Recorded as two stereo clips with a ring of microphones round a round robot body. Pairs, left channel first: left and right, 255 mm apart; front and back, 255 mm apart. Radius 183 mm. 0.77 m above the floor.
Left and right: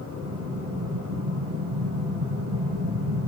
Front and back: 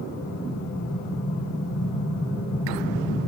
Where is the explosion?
55° right, 10 m.